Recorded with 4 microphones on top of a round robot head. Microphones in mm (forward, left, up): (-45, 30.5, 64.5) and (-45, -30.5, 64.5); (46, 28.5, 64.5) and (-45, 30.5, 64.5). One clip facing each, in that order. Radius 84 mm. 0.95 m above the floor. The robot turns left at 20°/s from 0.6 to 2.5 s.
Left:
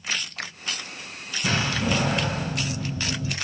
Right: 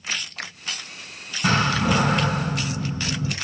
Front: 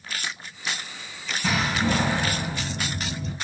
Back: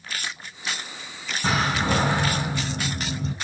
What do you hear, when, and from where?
1.4 s a door slam: 120° right, 6.5 m; by 3.3 s 140° right, 6.5 m